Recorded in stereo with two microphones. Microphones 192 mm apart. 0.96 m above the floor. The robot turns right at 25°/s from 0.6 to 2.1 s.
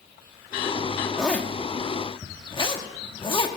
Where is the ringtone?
I don't hear a ringtone.